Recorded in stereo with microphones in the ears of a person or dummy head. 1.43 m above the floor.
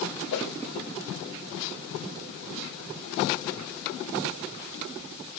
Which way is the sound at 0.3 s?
60° left (ahead or behind).